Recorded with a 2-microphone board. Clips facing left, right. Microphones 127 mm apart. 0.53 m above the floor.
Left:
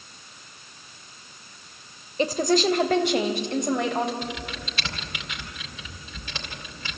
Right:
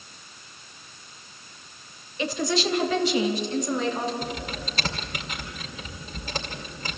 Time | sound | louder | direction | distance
2.2 | a woman speaking | left 4 dB | 40° left (ahead or behind) | 2 m
4.2 | typing on a keyboard | right 1 dB | 40° right (ahead or behind) | 2 m